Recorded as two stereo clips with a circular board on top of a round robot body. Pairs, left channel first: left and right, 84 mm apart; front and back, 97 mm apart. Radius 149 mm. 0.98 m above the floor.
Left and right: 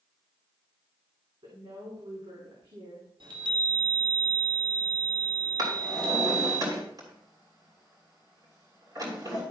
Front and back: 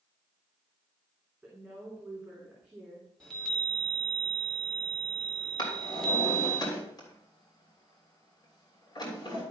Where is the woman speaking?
105° right, 3 m.